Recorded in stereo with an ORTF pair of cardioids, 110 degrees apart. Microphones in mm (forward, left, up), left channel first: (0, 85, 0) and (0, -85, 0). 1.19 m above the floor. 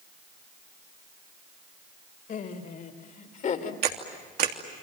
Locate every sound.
2.3 s laughter: 55° left, 4 m; by 3.7 s 50° left, 3 m
3.8 s a camera shutter: 65° right, 3 m